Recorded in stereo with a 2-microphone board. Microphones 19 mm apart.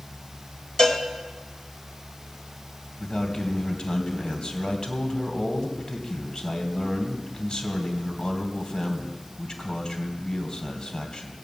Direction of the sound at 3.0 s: 50° left (ahead or behind).